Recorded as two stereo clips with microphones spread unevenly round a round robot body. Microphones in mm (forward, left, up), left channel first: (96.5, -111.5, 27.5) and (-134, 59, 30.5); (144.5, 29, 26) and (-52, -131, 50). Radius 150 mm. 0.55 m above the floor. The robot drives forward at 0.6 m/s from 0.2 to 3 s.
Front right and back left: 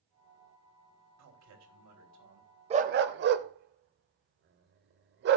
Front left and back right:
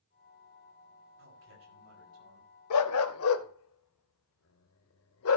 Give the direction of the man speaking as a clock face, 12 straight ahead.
6 o'clock.